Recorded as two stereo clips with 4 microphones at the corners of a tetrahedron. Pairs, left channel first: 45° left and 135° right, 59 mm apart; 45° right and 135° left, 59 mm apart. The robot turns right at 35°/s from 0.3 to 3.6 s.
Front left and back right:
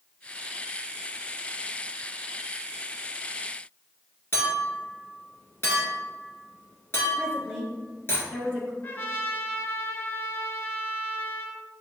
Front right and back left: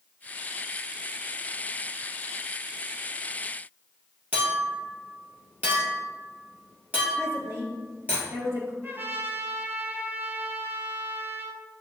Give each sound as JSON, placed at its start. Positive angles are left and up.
{"t": 4.3, "sound": "a clink", "azimuth_deg": 85, "distance_m": 1.7}
{"t": 7.2, "sound": "a woman speaking", "azimuth_deg": 115, "distance_m": 1.8}
{"t": 8.8, "sound": "a trumpet", "azimuth_deg": 95, "distance_m": 0.7}